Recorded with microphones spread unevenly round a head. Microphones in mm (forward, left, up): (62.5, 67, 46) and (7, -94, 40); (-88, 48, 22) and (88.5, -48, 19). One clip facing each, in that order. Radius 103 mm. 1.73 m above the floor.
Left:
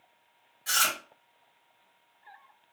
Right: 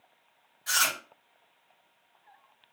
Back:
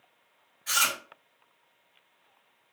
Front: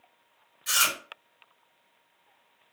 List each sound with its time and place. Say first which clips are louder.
0.7 s chewing: even, even; 15° left, 1.5 m